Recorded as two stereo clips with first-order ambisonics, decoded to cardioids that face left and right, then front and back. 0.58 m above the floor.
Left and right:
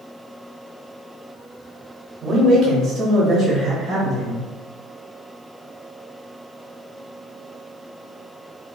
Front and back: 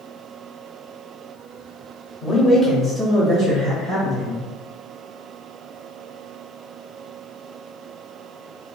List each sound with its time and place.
2.2 s a man speaking: 40° right, 1.1 m; by 4.4 s 175° left, 1.6 m